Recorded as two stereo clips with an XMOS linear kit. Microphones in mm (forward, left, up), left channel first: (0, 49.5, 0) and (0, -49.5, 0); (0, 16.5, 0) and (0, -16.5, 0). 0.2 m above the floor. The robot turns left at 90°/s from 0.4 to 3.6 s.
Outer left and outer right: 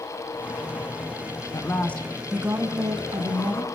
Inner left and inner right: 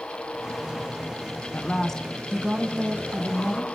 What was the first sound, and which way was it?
A woman speaking, 50° left.